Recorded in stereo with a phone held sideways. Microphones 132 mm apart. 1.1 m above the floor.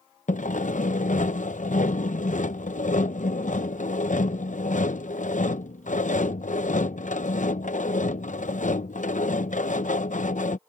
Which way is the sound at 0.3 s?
75° left (ahead or behind).